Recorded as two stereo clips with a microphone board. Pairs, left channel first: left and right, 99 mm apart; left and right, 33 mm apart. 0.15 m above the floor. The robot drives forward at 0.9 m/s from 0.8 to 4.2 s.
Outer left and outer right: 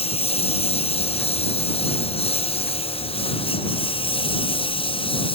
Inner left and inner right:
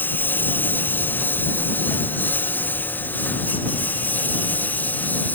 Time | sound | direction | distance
0.0 | a lawn mower | 85° left | ?